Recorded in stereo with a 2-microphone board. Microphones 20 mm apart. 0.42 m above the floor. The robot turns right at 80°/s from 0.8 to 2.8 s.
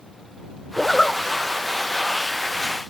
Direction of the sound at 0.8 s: 15° left (ahead or behind).